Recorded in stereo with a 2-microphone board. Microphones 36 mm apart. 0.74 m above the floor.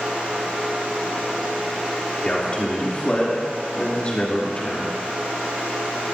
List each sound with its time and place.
2.2 s a man speaking: 35° left (ahead or behind), 2.5 m